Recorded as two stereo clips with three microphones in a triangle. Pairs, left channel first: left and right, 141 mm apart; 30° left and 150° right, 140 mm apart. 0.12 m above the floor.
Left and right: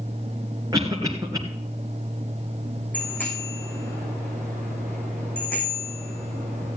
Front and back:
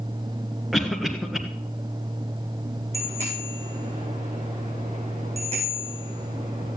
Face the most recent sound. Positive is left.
turn(degrees=170)